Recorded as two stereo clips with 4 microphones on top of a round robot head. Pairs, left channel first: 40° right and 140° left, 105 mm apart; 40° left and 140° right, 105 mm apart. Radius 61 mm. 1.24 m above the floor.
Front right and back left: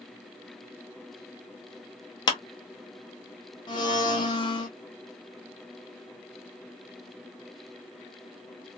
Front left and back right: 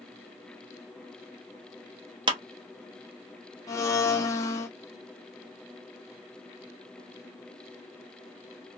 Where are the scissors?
I don't hear scissors.